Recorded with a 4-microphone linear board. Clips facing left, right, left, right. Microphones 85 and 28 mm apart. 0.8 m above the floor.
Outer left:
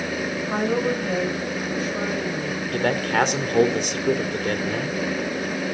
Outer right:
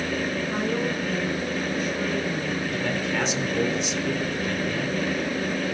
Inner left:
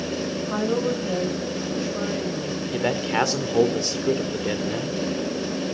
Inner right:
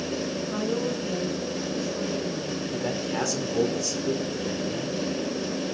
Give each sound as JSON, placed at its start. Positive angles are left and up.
{"t": 0.5, "sound": "a woman speaking", "side_deg": 50, "distance_m": 5.0}
{"t": 2.7, "sound": "a man speaking", "side_deg": 55, "distance_m": 2.5}